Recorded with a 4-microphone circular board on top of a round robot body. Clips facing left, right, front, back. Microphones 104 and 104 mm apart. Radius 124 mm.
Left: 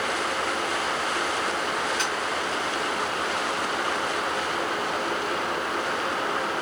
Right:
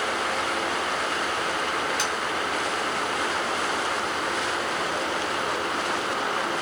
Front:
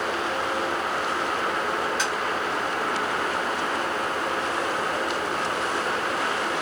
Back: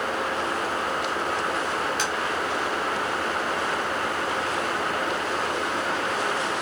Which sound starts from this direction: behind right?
Tapping, at 2.0 s.